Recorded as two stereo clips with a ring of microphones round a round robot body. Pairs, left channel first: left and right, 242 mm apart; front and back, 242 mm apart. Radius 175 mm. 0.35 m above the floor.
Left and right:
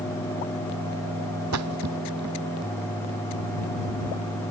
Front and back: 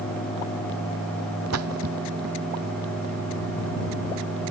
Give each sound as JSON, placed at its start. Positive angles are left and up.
{"t": 1.5, "sound": "a splash", "azimuth_deg": -135}